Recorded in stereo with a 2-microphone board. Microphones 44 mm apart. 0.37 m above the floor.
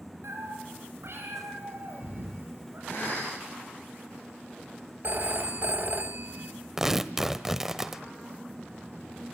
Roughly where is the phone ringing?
Right.